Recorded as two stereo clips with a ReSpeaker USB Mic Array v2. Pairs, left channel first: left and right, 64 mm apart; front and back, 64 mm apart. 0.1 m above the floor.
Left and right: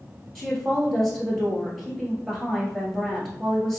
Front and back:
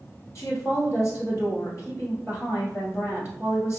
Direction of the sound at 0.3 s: Straight ahead.